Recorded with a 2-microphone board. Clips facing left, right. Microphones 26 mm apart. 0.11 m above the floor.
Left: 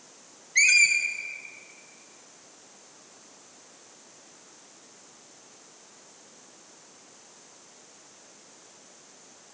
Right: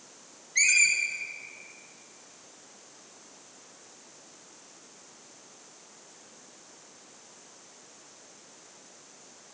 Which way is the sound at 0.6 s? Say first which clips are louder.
Left 4 dB; 20° left (ahead or behind).